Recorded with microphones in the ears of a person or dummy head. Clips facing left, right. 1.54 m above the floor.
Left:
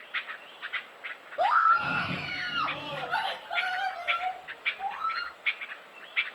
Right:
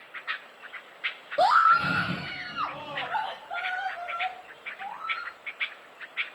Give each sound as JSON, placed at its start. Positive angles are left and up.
{"t": 1.4, "sound": "a scream", "side_deg": -55, "distance_m": 0.6}